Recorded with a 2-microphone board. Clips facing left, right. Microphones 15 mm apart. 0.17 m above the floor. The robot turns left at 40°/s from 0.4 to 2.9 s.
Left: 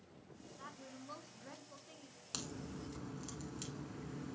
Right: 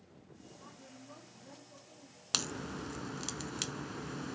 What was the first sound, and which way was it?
A woman speaking, 105° left.